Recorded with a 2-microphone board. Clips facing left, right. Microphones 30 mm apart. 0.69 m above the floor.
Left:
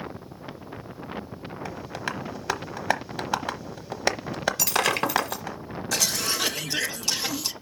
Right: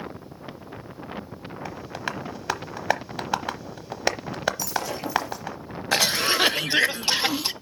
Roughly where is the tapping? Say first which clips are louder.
Right 1 dB; centre.